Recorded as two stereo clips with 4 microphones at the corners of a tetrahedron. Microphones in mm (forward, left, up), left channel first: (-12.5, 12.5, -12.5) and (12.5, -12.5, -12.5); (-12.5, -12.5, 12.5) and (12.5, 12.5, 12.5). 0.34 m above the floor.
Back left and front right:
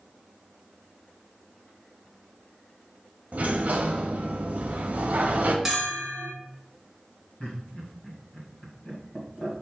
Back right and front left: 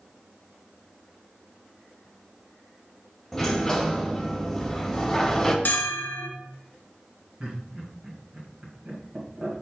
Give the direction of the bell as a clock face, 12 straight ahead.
4 o'clock.